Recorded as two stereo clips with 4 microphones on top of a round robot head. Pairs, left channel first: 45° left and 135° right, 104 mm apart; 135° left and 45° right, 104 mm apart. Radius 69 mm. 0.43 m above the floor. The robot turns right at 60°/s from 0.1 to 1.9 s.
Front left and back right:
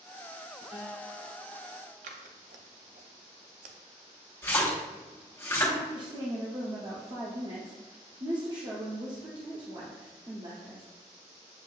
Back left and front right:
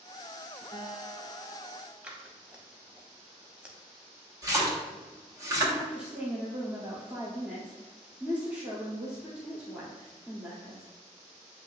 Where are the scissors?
125° right, 0.6 m.